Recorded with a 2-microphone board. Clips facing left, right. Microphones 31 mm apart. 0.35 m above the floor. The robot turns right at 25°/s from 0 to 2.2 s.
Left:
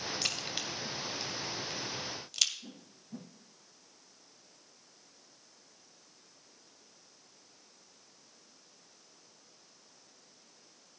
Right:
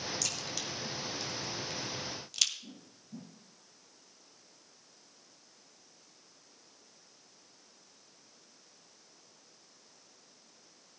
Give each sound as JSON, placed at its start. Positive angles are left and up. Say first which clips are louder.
{"t": 0.2, "sound": "a crack", "louder": "left 2 dB", "side_deg": 35, "distance_m": 1.7}
{"t": 2.6, "sound": "a whoosh", "louder": "even", "side_deg": 85, "distance_m": 3.5}